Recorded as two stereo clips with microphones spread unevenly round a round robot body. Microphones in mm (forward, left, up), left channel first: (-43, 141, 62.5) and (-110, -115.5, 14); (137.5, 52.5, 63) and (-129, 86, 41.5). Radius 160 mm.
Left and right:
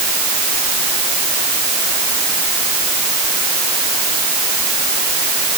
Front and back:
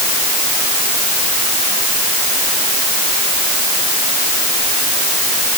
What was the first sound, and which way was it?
Only background noise.